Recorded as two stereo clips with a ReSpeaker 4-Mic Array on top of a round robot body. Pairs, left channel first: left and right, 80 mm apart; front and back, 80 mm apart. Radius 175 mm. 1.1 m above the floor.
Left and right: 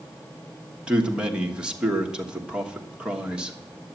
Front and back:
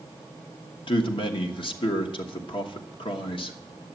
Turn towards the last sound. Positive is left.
turn(degrees=-10)